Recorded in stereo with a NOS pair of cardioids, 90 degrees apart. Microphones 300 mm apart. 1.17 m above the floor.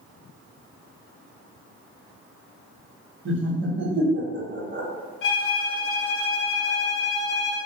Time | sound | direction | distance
3.2 | laughter | 40° right | 1.2 m
5.2 | a violin | 45° left | 0.8 m